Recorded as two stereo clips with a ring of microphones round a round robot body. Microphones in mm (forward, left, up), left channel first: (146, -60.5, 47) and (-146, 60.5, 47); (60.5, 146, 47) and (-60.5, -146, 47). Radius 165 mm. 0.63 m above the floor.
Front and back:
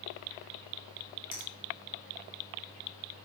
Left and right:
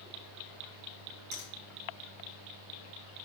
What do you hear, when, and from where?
1.3 s a finger snap: 75° right, 3.5 m